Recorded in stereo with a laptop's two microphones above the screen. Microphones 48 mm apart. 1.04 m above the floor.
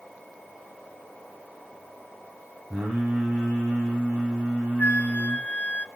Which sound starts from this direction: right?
Singing, at 2.7 s.